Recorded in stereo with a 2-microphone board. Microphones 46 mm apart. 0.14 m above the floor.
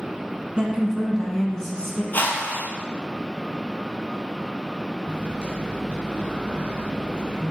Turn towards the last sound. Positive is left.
turn(degrees=-30)  # may be behind; listen again after turning